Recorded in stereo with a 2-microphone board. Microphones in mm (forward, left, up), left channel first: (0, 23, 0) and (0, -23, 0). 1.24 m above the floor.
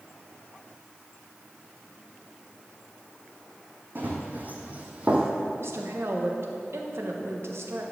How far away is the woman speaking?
About 1.3 m.